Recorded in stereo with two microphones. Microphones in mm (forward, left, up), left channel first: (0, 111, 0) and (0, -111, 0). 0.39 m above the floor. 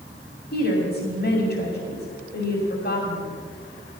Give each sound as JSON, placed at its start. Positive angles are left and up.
{"t": 0.5, "sound": "a woman speaking", "side_deg": 50, "distance_m": 2.5}